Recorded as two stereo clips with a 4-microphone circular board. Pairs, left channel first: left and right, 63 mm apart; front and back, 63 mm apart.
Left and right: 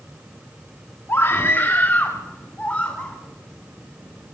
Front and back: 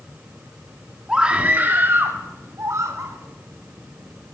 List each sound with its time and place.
1.1 s a scream: 105° left, 1.3 m; by 3.1 s 160° left, 2.5 m